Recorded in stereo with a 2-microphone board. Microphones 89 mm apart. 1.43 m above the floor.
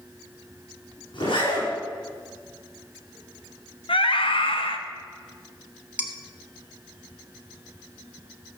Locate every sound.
1.1 s a zipper: 80° left, 5.5 m
3.9 s a scream: 75° left (ahead or behind), 1.3 m
6.0 s dishes clattering: 15° right (ahead or behind), 1.2 m